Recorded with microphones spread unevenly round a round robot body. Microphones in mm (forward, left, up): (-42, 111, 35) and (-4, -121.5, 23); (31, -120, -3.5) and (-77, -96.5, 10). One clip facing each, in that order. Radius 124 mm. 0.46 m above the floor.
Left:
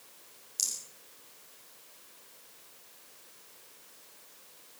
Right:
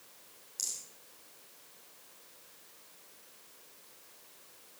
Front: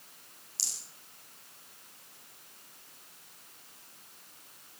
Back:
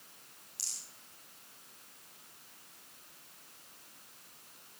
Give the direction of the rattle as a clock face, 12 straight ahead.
11 o'clock.